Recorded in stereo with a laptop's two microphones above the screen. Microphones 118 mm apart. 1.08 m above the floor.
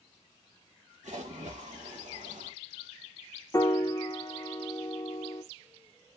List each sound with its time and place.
1.0 s a splash: 85° right, 1.7 m
3.5 s a piano: 20° left (ahead or behind), 0.8 m